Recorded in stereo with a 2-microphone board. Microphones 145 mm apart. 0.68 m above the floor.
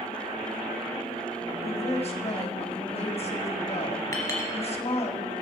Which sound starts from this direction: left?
A woman speaking, at 1.6 s.